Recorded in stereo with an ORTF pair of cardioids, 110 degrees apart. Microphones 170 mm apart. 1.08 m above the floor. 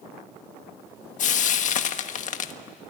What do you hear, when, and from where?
1.2 s frying: 50° left, 1.4 m